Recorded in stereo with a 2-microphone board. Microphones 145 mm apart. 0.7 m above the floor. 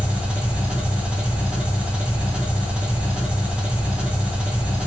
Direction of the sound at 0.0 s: 5° right (ahead or behind).